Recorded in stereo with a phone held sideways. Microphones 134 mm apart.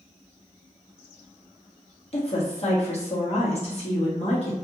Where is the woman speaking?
45° left (ahead or behind), 1.0 m.